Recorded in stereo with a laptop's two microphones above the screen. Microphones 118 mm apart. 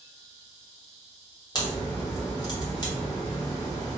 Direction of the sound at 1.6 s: 35° left (ahead or behind).